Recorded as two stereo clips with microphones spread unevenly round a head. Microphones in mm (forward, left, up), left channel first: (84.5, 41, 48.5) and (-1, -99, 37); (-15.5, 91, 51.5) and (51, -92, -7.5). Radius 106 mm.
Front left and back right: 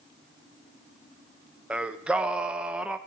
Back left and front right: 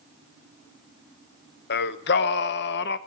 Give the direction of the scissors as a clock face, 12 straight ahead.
No scissors in this recording.